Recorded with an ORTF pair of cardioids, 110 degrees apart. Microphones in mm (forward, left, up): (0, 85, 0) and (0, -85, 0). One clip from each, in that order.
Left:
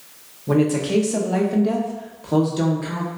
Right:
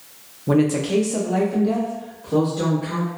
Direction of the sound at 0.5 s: 20° right.